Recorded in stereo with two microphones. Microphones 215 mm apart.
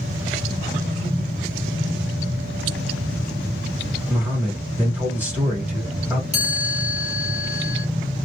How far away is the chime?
About 1.3 m.